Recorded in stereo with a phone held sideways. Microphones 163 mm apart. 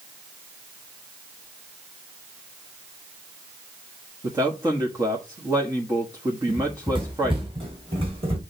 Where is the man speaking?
20° right (ahead or behind), 1.5 m.